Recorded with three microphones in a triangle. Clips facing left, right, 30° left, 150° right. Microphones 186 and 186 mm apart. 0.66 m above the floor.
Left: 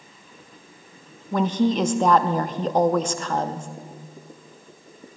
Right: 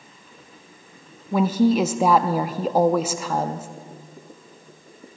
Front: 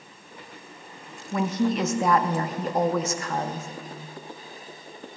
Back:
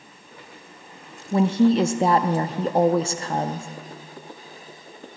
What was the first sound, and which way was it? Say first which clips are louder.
A woman speaking: right 3 dB, back 7 dB; 165° right.